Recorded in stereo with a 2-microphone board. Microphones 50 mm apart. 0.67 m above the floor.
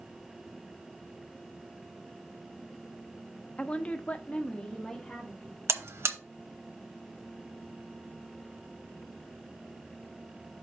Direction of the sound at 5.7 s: 60° right (ahead or behind).